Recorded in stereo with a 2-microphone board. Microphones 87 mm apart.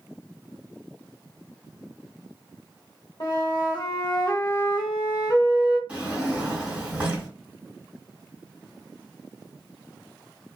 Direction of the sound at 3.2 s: 45° left (ahead or behind).